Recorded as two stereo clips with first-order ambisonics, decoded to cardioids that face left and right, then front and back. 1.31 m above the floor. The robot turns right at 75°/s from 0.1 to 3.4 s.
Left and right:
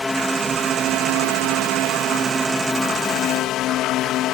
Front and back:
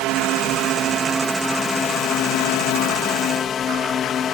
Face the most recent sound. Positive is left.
turn(degrees=55)